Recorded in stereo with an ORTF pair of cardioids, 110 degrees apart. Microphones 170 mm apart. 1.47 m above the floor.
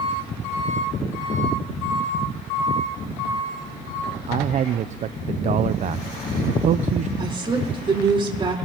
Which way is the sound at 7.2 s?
30° right.